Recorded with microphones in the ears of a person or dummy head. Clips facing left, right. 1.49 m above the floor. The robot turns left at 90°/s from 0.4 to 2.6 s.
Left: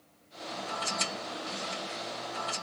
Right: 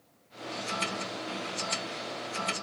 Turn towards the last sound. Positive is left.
No sound to turn to.